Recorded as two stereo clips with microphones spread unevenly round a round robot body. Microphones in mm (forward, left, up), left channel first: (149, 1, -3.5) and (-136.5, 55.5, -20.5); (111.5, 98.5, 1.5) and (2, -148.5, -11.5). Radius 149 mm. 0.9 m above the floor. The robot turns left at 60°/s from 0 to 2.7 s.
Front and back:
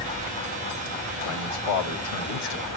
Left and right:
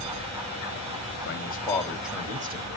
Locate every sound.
1.2 s a man speaking: 20° left, 1.4 m; by 2.8 s 65° right, 1.4 m